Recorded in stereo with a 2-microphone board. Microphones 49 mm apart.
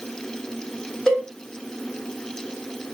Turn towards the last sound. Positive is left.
turn(degrees=5)  # may be behind; listen again after turning